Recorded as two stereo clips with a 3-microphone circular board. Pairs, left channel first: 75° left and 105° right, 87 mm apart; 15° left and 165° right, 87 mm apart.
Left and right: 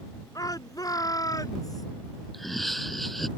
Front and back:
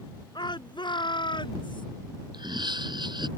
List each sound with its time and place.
0.3 s a shout: 35° left; by 1.9 s 30° left
2.3 s laughter: 165° left